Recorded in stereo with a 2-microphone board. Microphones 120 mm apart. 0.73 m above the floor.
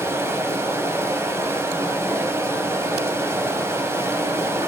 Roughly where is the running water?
Right.